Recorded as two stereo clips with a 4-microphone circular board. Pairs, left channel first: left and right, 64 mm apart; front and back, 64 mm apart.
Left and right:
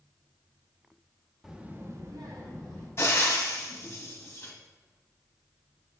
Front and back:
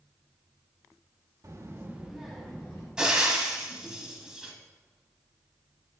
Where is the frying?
105° left, 1.1 m.